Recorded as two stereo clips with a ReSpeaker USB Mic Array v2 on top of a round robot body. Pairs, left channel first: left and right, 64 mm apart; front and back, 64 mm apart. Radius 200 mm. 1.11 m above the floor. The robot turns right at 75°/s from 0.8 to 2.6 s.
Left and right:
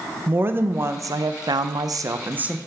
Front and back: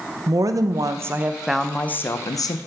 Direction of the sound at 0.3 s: 145° right.